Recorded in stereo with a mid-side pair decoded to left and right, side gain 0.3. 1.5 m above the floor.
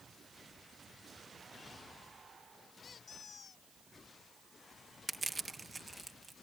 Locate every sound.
2.8 s a squeak: 55° left
5.1 s crushing: 30° right